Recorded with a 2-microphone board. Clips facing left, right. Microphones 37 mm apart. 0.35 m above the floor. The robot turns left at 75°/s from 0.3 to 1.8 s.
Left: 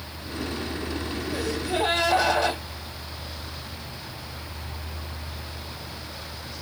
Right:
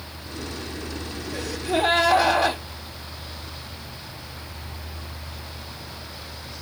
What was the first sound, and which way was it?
A gasp, 5° left.